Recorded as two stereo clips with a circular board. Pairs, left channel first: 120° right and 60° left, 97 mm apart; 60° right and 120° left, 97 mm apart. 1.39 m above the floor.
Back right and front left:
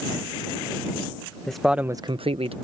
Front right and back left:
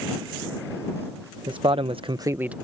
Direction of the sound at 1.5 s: 155° left.